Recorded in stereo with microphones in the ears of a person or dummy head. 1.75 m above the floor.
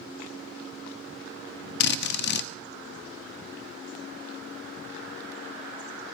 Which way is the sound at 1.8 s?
55° left (ahead or behind).